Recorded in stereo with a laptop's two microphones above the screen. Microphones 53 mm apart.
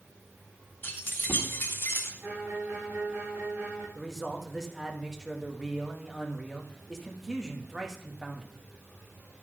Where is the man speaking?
10° right (ahead or behind), 1.5 m.